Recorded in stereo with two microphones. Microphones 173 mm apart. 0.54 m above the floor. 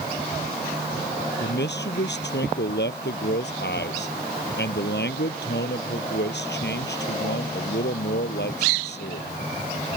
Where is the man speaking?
85° left.